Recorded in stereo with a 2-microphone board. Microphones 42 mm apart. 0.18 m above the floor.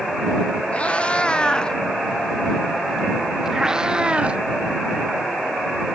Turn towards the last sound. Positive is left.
turn(degrees=-30)  # may be behind; listen again after turning